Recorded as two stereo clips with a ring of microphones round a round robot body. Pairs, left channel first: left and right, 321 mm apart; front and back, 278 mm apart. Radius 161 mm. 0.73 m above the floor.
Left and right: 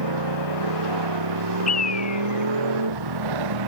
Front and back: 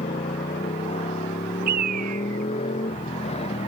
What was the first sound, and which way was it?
A motorcycle, 75° right.